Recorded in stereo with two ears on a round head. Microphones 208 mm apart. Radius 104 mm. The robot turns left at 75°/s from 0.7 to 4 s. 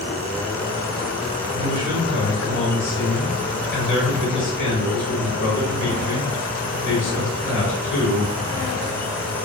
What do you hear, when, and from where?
1.5 s a man speaking: 95° right, 2 m; by 8.3 s 80° left, 2 m